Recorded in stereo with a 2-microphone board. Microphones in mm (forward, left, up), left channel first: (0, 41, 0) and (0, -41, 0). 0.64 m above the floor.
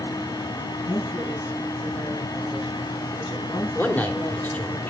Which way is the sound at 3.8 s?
20° left (ahead or behind).